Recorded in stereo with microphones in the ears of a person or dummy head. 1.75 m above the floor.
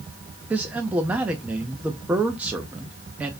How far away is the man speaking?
About 0.7 m.